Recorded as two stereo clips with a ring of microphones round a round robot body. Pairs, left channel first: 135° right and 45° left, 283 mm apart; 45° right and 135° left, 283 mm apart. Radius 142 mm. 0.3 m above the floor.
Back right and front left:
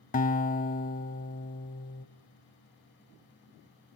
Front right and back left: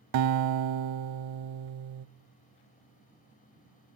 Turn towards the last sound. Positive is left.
turn(degrees=160)